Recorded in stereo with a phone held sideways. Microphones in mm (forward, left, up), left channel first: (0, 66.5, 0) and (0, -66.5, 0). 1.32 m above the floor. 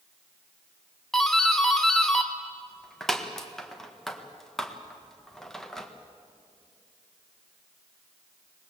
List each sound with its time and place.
1.1 s a doorbell: 5° left (ahead or behind), 1.6 m